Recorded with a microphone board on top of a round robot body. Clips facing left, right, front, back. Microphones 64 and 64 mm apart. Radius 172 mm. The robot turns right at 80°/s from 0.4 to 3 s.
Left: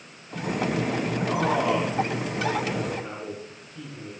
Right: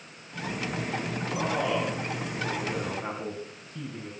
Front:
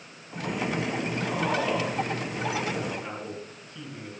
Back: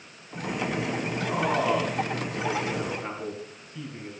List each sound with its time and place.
1.3 s a man speaking: 110° left, 4.5 m; by 4.1 s 115° right, 4.5 m